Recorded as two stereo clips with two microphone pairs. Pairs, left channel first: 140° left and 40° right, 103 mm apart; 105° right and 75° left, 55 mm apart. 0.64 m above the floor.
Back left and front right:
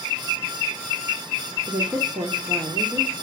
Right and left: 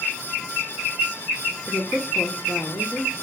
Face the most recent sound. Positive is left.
turn(degrees=-75)